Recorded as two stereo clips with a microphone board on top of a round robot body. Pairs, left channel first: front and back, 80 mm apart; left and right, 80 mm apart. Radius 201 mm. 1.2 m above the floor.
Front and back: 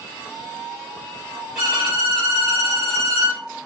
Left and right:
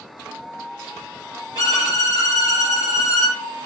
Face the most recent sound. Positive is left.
turn(degrees=-95)